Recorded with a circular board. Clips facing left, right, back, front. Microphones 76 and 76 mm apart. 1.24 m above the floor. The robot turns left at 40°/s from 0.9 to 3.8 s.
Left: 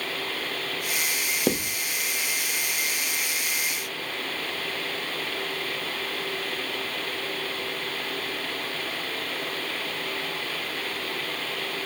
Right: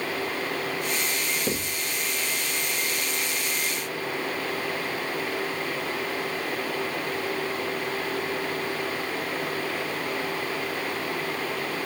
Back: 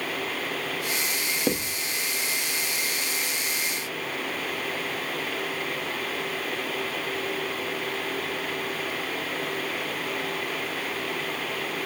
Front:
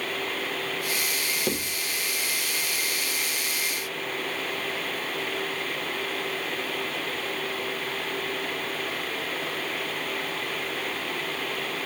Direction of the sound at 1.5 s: 110° left.